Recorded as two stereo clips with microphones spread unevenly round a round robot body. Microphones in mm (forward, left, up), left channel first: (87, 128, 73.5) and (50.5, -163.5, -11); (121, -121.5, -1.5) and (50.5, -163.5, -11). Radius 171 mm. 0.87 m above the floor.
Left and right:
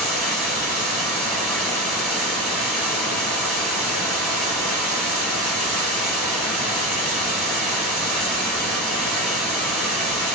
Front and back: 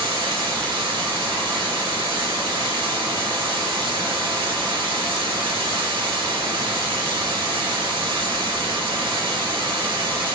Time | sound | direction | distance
0.0 | running water | 160° left | 1.1 m